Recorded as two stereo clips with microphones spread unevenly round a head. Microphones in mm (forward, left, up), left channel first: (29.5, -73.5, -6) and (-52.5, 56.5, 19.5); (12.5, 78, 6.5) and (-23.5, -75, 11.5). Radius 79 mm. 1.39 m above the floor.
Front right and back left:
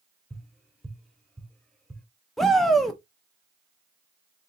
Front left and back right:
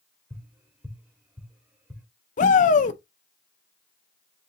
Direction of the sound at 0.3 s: 165° right.